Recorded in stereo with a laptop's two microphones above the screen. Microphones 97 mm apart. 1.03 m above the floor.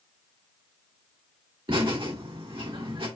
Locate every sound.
1.7 s laughter: 60° right (ahead or behind), 2.5 m